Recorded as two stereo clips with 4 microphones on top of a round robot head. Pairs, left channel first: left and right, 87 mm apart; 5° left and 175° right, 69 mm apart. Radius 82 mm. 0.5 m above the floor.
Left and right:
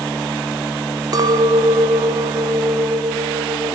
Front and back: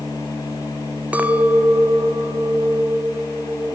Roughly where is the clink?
Behind right.